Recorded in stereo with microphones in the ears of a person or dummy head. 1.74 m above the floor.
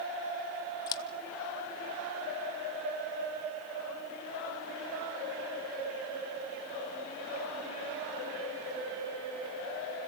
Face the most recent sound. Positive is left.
turn(degrees=20)  # may be behind; listen again after turning